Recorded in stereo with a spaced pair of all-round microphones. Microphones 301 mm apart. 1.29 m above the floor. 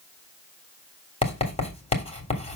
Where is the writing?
20° left (ahead or behind), 3.5 m.